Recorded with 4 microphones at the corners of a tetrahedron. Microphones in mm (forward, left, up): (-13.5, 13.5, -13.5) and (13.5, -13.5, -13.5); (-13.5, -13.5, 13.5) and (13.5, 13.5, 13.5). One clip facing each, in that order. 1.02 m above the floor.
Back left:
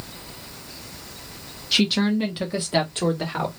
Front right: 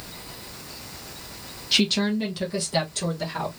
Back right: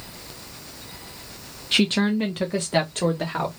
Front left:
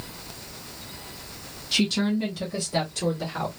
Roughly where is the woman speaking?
Behind right.